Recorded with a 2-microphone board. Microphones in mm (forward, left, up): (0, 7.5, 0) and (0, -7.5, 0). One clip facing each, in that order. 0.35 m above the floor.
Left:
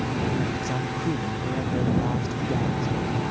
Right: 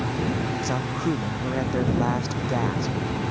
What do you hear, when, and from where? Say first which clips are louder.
0.6 s a man speaking: right 1 dB; 20° right (ahead or behind); by 3.0 s 30° right (ahead or behind)